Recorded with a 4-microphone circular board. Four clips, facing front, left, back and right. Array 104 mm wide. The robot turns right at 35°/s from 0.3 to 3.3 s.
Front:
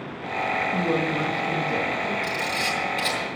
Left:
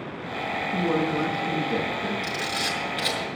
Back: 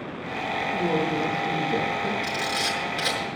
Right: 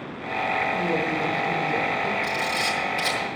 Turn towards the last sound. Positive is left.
turn(degrees=165)